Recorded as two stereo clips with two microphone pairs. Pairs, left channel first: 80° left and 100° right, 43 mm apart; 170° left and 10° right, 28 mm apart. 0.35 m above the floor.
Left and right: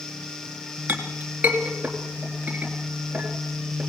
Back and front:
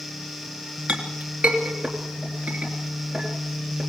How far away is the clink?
About 3.5 m.